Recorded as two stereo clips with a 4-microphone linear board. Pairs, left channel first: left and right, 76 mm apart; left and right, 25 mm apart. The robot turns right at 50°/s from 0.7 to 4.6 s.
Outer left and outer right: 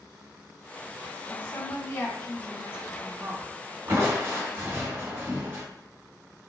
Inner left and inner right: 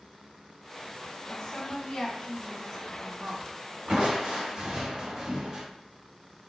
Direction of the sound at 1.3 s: 120° left.